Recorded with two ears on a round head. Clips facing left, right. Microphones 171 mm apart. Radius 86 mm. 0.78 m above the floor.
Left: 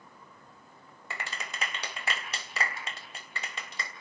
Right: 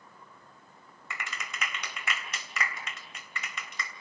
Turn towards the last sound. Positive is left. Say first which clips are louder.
# left 2 dB
turn(degrees=30)  # may be behind; listen again after turning